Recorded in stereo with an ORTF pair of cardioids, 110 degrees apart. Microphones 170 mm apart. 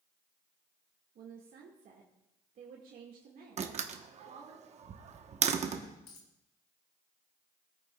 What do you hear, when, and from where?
1.1 s a woman speaking: 55° right, 1.8 m
3.6 s a door slam: 40° right, 1.0 m
6.1 s a dropped coin: 65° left, 2.5 m